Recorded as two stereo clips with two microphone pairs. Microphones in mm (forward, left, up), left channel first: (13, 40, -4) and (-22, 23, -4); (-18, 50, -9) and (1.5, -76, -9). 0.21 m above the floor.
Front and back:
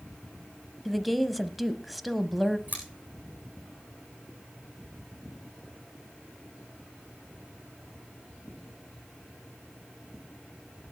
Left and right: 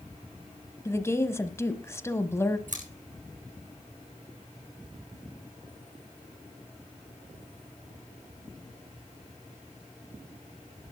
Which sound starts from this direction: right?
Scissors, at 2.7 s.